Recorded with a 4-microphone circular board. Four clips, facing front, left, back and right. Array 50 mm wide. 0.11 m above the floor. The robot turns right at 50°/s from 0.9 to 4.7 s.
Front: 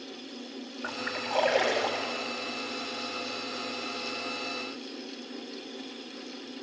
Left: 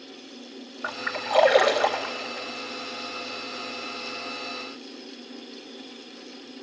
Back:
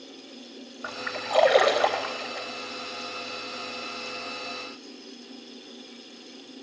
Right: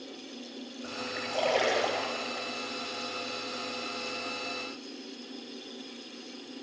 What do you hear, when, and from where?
0.8 s a splash: 105° left, 3.5 m; by 2.5 s 175° right, 3.5 m